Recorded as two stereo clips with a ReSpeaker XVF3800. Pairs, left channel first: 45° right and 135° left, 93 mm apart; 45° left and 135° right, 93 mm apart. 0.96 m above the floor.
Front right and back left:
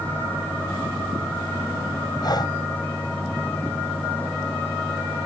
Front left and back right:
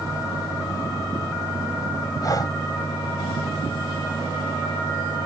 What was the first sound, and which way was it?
Breathing, 5° right.